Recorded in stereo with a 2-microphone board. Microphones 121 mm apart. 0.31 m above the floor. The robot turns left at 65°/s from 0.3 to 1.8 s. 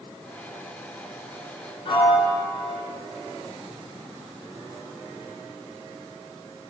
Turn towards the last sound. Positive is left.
turn(degrees=40)  # may be behind; listen again after turning